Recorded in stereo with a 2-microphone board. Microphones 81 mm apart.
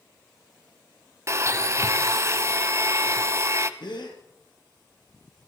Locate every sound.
1.3 s a blender: 40° right (ahead or behind), 0.6 m
3.8 s a gasp: 70° left (ahead or behind), 2.5 m